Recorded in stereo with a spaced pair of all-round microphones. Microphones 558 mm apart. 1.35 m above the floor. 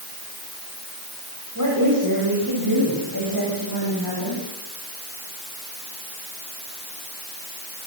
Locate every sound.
1.6 s a woman speaking: 30° right (ahead or behind), 8 m; by 4.4 s 40° right (ahead or behind), 9.5 m